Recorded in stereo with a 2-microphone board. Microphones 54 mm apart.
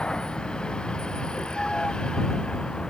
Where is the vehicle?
15° left (ahead or behind).